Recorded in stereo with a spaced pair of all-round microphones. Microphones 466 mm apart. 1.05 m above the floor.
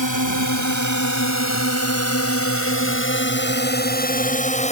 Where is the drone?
40° left (ahead or behind); by 4.7 s 15° left (ahead or behind).